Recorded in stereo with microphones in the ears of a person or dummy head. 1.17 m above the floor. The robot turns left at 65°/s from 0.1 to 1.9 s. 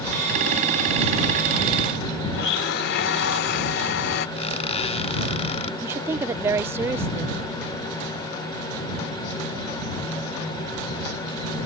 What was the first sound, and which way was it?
A blender, 55° left (ahead or behind).